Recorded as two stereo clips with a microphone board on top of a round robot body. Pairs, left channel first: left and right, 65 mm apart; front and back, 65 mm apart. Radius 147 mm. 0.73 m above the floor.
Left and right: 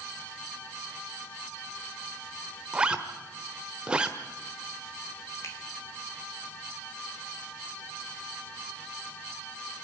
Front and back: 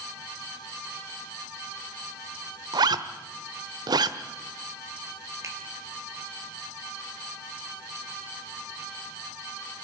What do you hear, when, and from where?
2.7 s a zipper: 165° right, 1.2 m
5.4 s a finger snap: 135° left, 4 m